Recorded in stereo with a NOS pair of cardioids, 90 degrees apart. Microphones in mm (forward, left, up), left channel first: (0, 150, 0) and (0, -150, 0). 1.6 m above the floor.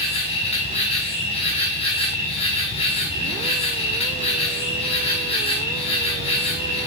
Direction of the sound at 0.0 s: 20° left.